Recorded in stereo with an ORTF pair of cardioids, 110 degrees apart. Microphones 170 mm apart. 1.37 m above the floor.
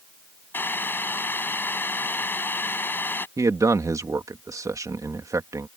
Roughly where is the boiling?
Ahead.